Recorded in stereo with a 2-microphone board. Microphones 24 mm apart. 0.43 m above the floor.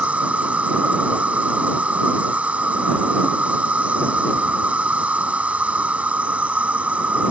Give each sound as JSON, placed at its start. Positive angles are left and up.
{"t": 0.0, "sound": "an insect", "side_deg": -60}